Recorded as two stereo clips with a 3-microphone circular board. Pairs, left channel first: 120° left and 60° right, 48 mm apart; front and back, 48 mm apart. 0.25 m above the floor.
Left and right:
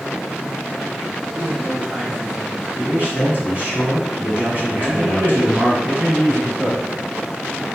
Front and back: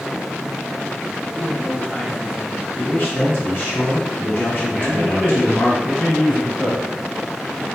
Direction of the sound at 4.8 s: 55° right.